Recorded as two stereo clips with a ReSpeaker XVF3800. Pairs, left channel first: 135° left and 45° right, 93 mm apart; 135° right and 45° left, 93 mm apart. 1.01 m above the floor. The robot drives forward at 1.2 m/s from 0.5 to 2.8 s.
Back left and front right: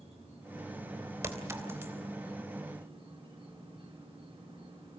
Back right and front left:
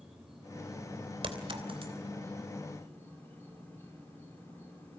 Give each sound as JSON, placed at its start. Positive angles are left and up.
{"t": 0.0, "sound": "an insect", "azimuth_deg": -40, "distance_m": 5.5}
{"t": 1.2, "sound": "a clink", "azimuth_deg": 15, "distance_m": 3.0}